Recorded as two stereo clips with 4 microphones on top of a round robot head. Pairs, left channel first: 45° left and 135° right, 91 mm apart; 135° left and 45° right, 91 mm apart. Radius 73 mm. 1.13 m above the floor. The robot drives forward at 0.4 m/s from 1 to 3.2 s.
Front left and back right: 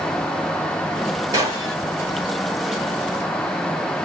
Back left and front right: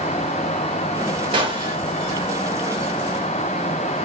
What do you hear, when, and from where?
1.3 s a gunshot: 75° right, 1.8 m; by 1.8 s 80° right, 1.7 m